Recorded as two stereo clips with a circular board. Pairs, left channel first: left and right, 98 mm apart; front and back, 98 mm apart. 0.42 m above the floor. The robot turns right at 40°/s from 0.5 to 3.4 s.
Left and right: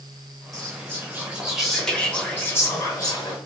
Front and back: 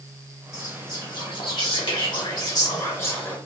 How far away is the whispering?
About 1.3 m.